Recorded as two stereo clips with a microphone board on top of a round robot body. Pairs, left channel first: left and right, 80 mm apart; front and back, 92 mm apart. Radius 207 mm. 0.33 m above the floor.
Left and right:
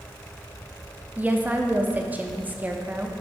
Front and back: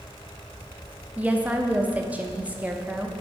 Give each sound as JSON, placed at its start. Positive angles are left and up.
{"t": 1.2, "sound": "a woman speaking", "azimuth_deg": -125, "distance_m": 0.9}